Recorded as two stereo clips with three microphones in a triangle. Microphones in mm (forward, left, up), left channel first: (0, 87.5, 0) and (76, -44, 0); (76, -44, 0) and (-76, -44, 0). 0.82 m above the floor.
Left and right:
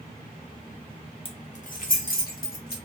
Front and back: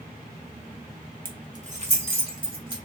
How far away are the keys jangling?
About 0.7 m.